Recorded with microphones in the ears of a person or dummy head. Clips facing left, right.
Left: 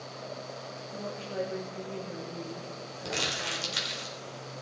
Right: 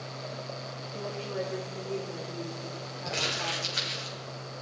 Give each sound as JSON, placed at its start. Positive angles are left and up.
{"t": 0.9, "sound": "a woman speaking", "side_deg": 20, "distance_m": 3.0}
{"t": 3.0, "sound": "crumpling", "side_deg": 80, "distance_m": 4.0}